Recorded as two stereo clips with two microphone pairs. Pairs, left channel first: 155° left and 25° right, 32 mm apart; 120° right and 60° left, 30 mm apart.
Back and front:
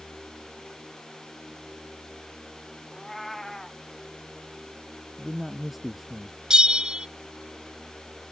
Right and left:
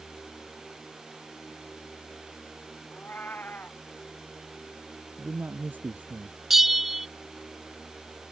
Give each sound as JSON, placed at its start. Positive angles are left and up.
{"t": 2.9, "sound": "a cat meowing", "azimuth_deg": -125}
{"t": 5.2, "sound": "a man speaking", "azimuth_deg": 65}
{"t": 6.5, "sound": "a bell", "azimuth_deg": -10}